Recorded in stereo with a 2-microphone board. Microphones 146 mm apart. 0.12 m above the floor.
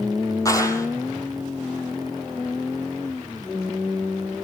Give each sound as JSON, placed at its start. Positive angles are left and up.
{"t": 0.5, "sound": "a clap", "side_deg": 20, "distance_m": 3.0}